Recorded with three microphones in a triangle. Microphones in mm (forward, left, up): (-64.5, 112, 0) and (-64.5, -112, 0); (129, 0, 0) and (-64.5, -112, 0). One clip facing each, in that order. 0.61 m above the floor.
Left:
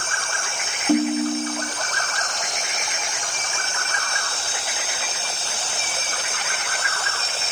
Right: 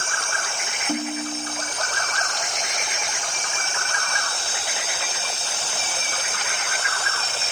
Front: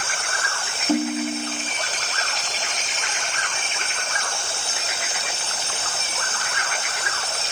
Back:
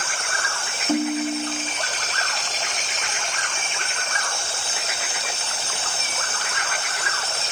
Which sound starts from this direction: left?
A ringtone, at 0.9 s.